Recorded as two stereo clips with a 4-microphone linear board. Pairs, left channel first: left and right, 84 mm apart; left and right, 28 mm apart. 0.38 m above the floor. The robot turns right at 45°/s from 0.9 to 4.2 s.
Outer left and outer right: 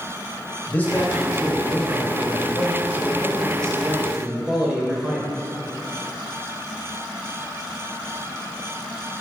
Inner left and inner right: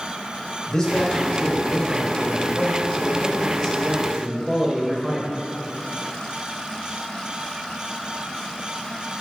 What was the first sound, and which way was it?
A man speaking, 40° left.